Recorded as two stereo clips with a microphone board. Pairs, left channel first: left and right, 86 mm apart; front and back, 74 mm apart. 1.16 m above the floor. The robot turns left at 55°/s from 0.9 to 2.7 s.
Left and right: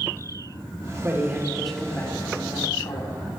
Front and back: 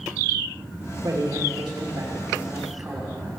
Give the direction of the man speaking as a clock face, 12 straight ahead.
5 o'clock.